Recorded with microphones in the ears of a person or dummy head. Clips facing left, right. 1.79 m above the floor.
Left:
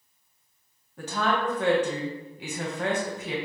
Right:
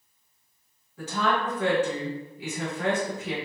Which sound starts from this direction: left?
A woman speaking, at 1.0 s.